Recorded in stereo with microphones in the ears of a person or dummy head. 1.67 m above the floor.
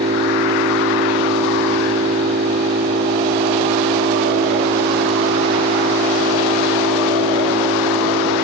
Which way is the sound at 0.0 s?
40° right (ahead or behind).